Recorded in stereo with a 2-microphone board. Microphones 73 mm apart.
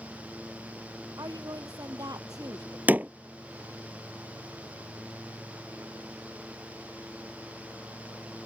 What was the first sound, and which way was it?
A woman speaking, 60° right (ahead or behind).